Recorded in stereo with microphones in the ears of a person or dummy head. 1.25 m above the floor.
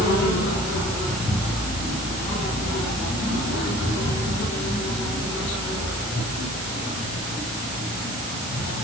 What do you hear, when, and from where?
Only background noise.